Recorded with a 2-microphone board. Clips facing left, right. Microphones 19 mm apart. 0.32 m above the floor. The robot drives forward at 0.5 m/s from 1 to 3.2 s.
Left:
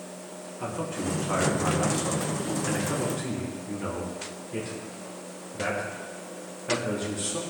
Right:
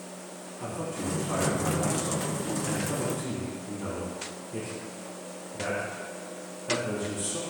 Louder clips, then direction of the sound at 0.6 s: Left 2 dB; 40° left (ahead or behind).